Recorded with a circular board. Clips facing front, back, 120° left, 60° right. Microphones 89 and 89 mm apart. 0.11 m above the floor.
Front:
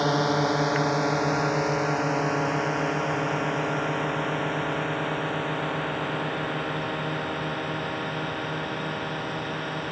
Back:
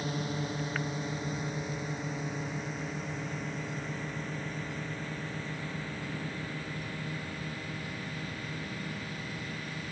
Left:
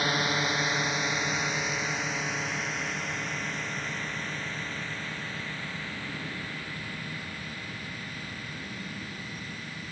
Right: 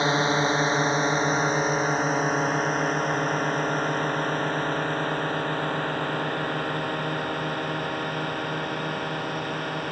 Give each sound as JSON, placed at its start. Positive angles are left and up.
{"t": 0.0, "sound": "a drone", "azimuth_deg": 0}